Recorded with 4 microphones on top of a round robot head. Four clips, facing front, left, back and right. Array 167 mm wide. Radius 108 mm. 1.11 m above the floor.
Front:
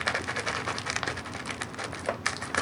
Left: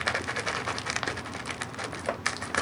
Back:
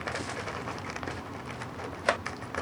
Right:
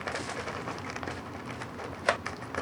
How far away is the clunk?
No clunk in this recording.